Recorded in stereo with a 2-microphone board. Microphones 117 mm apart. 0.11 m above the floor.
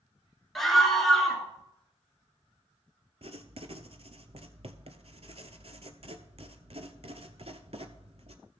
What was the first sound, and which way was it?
A scream, centre (ahead or behind).